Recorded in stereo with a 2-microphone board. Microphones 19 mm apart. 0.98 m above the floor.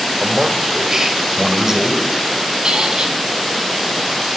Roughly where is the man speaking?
Right.